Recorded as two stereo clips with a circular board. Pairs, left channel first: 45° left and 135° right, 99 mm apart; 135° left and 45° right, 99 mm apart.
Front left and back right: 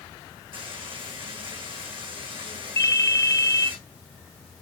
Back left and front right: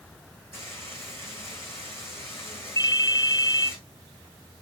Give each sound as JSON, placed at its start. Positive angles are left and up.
{"t": 0.5, "sound": "frying", "azimuth_deg": -160, "distance_m": 5.0}
{"t": 2.8, "sound": "a ringtone", "azimuth_deg": 95, "distance_m": 0.7}